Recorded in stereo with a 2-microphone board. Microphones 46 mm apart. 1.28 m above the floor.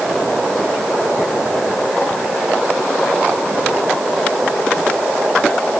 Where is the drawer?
I don't hear a drawer.